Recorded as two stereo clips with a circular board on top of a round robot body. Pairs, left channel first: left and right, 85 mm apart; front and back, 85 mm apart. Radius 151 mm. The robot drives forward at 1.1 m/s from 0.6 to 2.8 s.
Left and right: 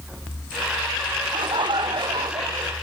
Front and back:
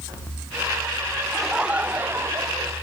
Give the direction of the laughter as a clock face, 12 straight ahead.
3 o'clock.